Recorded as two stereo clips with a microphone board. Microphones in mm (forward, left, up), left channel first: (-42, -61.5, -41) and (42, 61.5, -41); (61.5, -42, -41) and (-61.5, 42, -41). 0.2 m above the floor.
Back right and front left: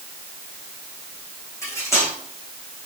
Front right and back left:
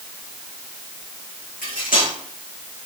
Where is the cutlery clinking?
55° right, 6 m.